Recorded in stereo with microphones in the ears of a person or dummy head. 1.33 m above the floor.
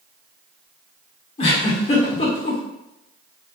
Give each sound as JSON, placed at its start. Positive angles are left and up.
{"t": 1.4, "sound": "a giggle", "side_deg": 45, "distance_m": 1.2}